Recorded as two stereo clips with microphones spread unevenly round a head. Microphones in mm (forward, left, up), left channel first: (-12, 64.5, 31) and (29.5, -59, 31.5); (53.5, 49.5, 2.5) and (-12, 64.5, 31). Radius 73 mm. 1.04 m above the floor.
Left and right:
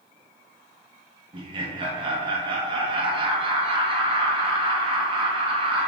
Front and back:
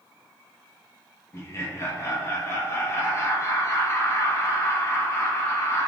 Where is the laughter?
25° right, 0.8 m.